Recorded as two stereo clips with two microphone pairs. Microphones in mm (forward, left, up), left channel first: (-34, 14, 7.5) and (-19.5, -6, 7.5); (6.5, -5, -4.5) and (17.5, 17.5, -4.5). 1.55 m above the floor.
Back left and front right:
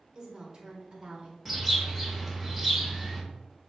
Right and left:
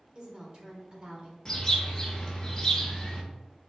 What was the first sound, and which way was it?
A woman speaking, 10° left.